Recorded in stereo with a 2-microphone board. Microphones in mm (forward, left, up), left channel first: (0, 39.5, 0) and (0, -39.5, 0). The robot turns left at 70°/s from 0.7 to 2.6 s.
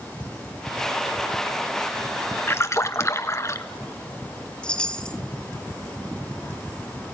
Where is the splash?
25° left (ahead or behind), 0.9 m; by 3.7 s 35° left (ahead or behind), 0.9 m.